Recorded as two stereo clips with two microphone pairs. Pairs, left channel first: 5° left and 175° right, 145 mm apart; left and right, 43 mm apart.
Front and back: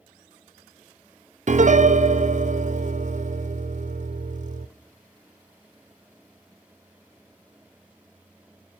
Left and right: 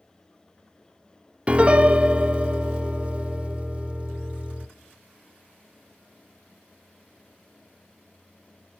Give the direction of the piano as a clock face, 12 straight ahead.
5 o'clock.